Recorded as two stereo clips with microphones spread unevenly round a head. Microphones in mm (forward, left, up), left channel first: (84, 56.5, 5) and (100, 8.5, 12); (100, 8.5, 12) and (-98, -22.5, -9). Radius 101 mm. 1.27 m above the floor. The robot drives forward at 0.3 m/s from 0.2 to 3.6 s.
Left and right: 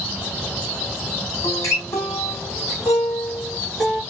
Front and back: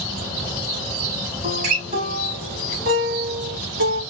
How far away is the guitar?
About 1.4 m.